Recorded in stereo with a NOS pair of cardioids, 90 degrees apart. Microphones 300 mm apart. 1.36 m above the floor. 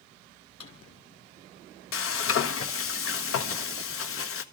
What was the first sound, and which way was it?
A drawer, 55° left.